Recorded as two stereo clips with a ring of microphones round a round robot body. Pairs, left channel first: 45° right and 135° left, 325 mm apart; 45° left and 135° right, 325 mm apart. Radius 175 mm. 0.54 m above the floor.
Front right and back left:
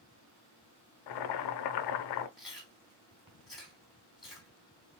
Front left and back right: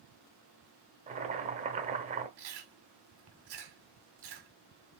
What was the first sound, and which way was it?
Boiling, 65° right.